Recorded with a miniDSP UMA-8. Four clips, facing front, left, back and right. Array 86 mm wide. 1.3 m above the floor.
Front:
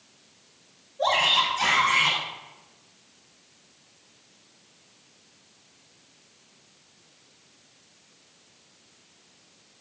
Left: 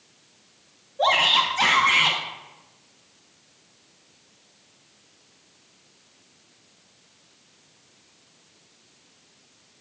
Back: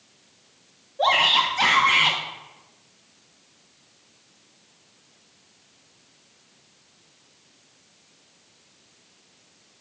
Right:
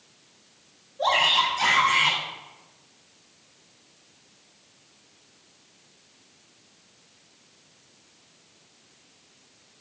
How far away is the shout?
About 1.0 m.